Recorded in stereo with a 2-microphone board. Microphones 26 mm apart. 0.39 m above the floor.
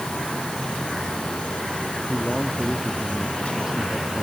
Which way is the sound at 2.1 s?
10° right (ahead or behind).